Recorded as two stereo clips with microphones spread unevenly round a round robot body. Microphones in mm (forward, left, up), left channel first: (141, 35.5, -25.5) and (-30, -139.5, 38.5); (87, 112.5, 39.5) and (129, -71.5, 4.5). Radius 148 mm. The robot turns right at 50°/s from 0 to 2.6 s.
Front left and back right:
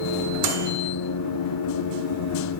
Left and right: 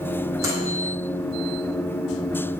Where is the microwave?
150° right, 2 m; by 0.7 s 135° right, 2 m.